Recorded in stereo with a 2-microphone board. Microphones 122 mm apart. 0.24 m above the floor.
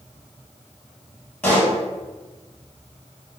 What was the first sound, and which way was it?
A pop, 15° left (ahead or behind).